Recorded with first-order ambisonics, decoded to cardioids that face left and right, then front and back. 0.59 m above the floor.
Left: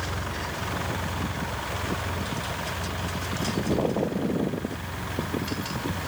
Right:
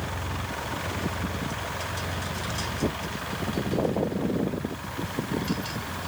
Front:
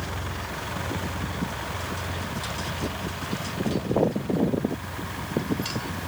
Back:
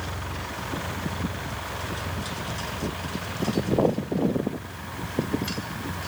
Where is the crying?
No crying in this recording.